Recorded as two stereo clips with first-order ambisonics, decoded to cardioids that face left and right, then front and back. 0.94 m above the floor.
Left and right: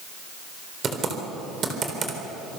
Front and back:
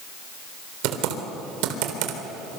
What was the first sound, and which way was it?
Typing on a keyboard, 155° right.